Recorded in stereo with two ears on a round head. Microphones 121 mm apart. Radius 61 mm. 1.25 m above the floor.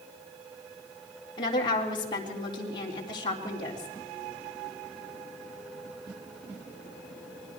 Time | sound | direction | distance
1.4 | a woman speaking | 35° left (ahead or behind) | 3.5 m